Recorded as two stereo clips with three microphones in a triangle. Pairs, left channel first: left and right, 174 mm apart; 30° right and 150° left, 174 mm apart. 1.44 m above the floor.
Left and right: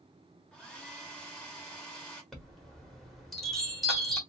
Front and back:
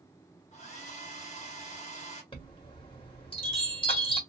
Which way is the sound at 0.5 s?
5° left.